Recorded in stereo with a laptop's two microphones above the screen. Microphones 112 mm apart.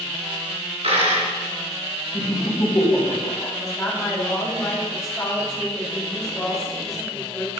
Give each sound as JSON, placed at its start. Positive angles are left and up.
{"t": 0.8, "sound": "a dropped coin", "side_deg": -70, "distance_m": 3.5}
{"t": 2.1, "sound": "laughter", "side_deg": 20, "distance_m": 4.5}
{"t": 3.6, "sound": "a woman speaking", "side_deg": 5, "distance_m": 4.0}